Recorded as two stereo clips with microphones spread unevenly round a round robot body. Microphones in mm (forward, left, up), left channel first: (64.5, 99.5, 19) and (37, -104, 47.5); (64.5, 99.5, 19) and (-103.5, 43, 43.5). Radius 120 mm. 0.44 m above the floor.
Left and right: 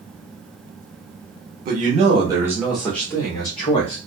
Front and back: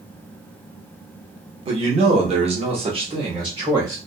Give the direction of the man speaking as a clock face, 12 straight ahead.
4 o'clock.